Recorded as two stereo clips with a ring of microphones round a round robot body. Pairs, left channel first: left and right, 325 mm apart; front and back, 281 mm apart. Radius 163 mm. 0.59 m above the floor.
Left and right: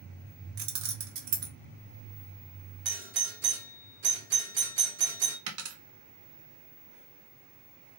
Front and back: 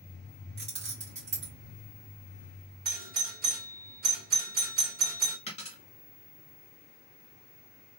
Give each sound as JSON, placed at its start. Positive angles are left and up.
{"t": 0.6, "sound": "keys jangling", "azimuth_deg": -115, "distance_m": 0.9}
{"t": 2.9, "sound": "a doorbell", "azimuth_deg": -135, "distance_m": 1.5}
{"t": 5.5, "sound": "a dropped coin", "azimuth_deg": -70, "distance_m": 1.0}